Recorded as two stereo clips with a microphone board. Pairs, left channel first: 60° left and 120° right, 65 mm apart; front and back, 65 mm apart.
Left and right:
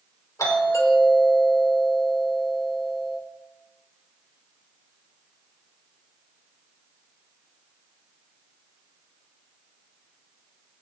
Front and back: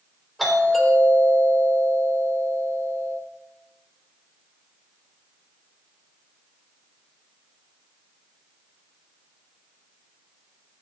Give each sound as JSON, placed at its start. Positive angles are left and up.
{"t": 0.4, "sound": "a doorbell", "azimuth_deg": 90, "distance_m": 3.5}